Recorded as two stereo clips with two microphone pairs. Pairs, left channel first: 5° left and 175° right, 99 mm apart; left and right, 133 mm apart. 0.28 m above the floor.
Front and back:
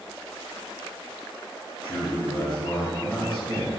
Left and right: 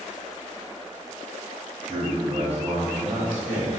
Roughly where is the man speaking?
Ahead.